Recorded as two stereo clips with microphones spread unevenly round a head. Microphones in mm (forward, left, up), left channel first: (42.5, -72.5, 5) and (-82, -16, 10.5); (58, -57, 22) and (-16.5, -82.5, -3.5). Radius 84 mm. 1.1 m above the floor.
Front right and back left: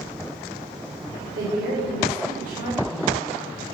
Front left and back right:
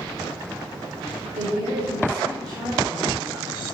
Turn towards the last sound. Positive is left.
turn(degrees=180)